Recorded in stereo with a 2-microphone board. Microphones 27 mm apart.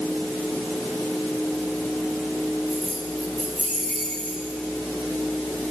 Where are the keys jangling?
85° right, 7.5 m; by 4.6 s 65° right (ahead or behind), 8.5 m.